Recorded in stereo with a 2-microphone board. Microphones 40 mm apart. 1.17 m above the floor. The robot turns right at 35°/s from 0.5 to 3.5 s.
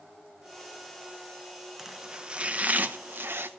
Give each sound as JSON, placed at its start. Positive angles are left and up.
{"t": 1.8, "sound": "chopping", "azimuth_deg": -170, "distance_m": 0.9}